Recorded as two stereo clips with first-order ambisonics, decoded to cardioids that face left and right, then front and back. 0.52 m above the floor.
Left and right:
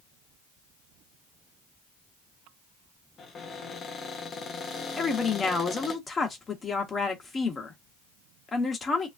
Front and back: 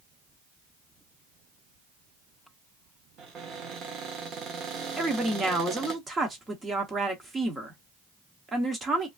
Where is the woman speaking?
135° left, 0.8 m.